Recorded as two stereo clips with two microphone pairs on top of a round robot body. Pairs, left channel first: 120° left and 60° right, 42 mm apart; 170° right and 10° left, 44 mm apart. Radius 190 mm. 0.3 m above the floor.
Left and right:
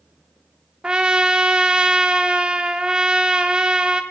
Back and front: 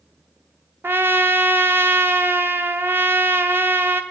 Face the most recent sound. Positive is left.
turn(degrees=0)